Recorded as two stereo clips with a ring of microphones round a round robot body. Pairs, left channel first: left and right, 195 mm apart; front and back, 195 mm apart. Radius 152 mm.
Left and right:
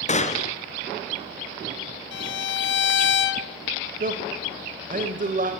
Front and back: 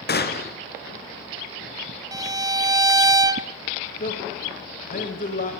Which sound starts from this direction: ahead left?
A gunshot, at 0.1 s.